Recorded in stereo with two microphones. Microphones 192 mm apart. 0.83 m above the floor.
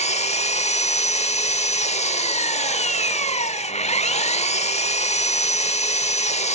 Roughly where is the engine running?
Left.